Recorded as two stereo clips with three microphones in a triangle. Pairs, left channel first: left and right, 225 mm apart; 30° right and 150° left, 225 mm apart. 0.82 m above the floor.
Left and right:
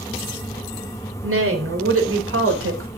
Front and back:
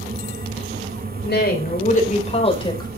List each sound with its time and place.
1.2 s a woman speaking: 70° right, 3.5 m; by 2.9 s 100° right, 3.5 m